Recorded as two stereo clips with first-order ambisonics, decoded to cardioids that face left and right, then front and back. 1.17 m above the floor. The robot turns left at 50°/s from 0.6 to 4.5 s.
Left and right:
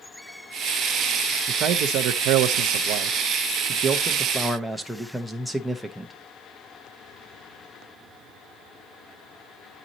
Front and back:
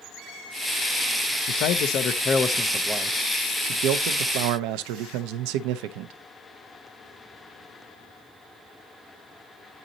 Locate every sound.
1.5 s a man speaking: 30° right, 0.8 m; by 6.1 s straight behind, 0.8 m